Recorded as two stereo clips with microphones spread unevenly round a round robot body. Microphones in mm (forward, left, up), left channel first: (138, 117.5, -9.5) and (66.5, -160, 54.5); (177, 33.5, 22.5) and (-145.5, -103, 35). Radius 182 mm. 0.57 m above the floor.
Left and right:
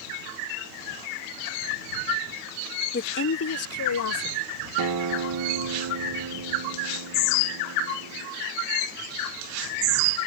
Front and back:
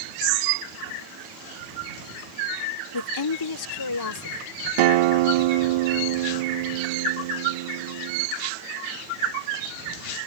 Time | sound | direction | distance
2.9 | a woman speaking | 30° left | ?
4.8 | a guitar | 155° right | ?